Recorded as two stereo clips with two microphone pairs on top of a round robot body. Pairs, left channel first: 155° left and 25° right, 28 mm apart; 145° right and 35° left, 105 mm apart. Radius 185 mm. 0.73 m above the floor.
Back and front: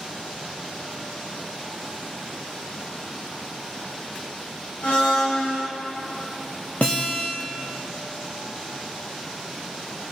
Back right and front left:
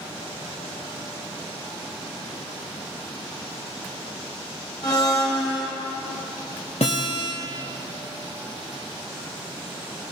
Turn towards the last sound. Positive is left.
turn(degrees=-170)